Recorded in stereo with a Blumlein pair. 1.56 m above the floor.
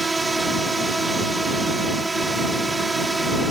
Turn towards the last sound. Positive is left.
turn(degrees=-10)